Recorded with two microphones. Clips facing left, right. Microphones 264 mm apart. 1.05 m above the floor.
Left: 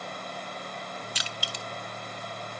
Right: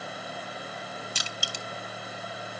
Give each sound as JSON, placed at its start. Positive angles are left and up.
{"t": 1.1, "sound": "crushing", "side_deg": -50, "distance_m": 0.6}